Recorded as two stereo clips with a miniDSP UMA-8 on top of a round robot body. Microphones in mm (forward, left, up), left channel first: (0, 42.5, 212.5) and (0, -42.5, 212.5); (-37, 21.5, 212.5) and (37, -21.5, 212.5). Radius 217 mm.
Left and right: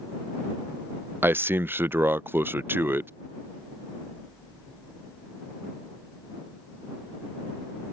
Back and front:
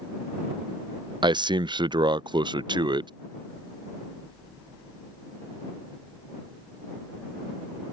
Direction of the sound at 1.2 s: 30° right.